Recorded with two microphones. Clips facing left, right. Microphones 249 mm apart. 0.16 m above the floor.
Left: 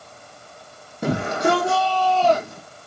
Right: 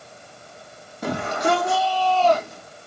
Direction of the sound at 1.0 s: 25° left (ahead or behind).